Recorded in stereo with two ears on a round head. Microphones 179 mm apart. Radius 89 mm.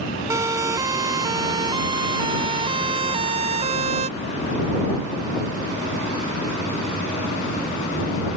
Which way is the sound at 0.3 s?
15° right (ahead or behind).